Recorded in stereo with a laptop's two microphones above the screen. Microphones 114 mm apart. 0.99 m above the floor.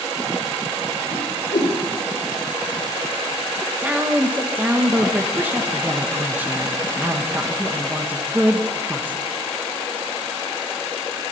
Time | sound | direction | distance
1.1 | a whoosh | 85° left | 3 m
3.6 | a woman speaking | 15° right (ahead or behind) | 1.2 m